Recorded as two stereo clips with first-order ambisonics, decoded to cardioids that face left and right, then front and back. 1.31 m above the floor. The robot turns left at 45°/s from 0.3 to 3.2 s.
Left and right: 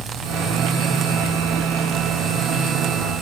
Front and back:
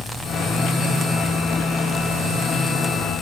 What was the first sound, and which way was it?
Only background noise.